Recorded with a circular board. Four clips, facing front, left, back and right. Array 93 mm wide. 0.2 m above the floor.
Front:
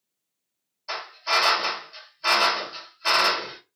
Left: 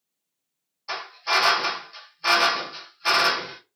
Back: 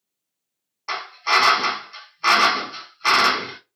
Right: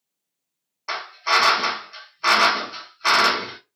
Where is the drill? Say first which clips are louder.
Right 4 dB, back 5 dB; 140° right, 3.5 m.